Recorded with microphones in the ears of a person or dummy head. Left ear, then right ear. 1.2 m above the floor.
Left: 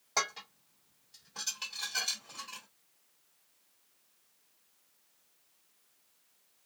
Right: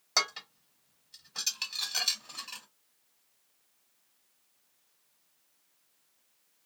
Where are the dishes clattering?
30° right (ahead or behind), 1.7 m.